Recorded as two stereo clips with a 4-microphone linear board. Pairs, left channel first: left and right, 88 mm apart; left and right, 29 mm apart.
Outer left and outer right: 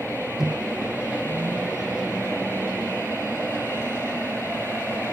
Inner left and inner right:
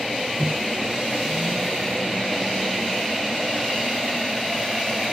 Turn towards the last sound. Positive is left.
turn(degrees=-5)  # may be behind; listen again after turning